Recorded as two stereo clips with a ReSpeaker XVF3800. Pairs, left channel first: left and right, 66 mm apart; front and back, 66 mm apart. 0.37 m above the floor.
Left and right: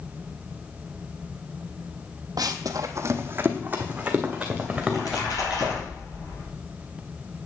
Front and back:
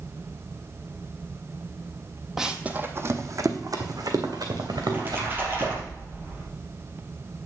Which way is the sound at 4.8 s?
120° left.